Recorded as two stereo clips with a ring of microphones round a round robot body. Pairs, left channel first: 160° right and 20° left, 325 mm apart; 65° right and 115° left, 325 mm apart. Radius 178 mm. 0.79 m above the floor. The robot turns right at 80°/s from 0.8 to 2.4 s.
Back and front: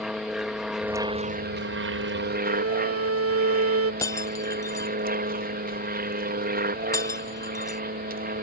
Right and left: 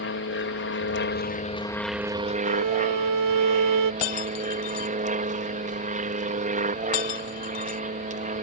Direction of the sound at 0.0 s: 65° right.